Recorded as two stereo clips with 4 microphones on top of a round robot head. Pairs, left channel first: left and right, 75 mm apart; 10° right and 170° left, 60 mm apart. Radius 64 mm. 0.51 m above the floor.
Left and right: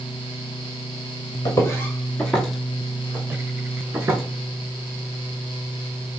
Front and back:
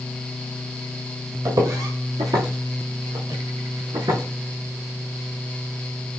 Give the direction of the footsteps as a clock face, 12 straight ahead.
7 o'clock.